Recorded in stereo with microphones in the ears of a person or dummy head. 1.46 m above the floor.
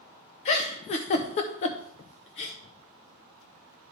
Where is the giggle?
35° left (ahead or behind), 0.5 m.